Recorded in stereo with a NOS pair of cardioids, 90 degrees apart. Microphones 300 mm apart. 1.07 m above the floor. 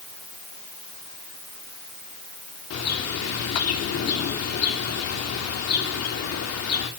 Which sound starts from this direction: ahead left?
A bird, at 2.7 s.